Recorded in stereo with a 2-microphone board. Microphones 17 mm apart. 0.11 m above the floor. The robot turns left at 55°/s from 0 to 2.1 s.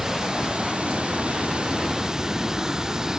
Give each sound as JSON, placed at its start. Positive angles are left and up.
{"t": 0.0, "sound": "running water", "azimuth_deg": -30}